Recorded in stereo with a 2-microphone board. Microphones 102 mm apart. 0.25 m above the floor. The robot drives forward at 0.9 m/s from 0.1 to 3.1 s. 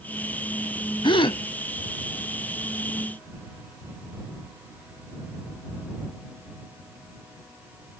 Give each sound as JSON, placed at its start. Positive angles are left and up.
{"t": 1.0, "sound": "a gasp", "side_deg": 50, "distance_m": 0.5}